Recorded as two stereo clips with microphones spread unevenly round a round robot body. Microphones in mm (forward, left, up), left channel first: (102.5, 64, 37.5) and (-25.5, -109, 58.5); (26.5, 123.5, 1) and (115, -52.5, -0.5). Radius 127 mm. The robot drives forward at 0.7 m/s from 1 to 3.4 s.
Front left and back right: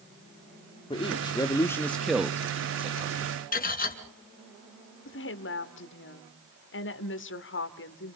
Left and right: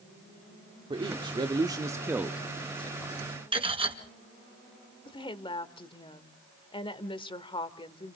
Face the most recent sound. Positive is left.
turn(degrees=55)